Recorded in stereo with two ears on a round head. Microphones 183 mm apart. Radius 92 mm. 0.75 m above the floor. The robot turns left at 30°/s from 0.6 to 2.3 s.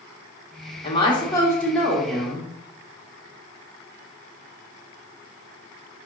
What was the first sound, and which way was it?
A woman speaking, 35° left.